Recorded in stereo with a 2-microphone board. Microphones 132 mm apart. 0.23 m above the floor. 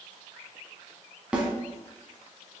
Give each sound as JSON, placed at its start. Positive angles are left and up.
{"t": 1.3, "sound": "a snare drum", "side_deg": -10, "distance_m": 0.9}